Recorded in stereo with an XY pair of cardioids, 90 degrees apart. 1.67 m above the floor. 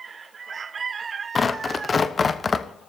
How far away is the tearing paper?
About 1.0 m.